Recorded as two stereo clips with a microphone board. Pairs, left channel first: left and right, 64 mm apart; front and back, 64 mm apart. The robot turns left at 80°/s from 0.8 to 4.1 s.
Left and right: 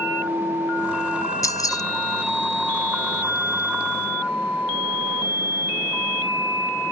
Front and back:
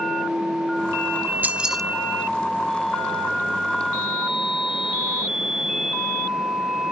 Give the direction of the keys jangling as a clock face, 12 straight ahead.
8 o'clock.